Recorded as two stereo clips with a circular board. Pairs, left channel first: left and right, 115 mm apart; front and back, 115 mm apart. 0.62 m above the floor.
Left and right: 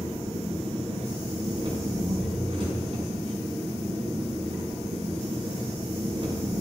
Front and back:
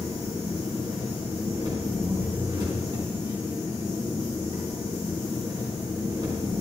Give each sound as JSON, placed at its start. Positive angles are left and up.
{"t": 0.0, "sound": "an engine running", "azimuth_deg": -130, "distance_m": 4.5}